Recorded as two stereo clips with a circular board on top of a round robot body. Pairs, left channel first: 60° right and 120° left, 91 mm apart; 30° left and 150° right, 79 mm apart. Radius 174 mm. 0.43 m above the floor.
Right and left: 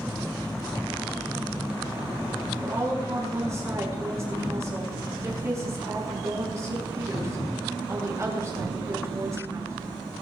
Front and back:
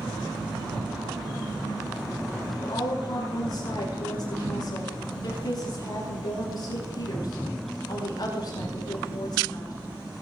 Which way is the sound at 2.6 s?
65° left.